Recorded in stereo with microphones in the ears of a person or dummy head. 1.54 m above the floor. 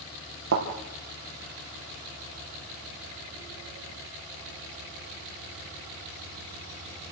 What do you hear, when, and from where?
0.5 s a thud: 55° right (ahead or behind), 4.5 m